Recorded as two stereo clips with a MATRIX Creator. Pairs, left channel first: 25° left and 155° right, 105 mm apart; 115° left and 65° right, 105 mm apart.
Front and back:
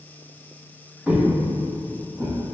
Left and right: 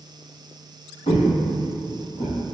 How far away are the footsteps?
About 1.2 m.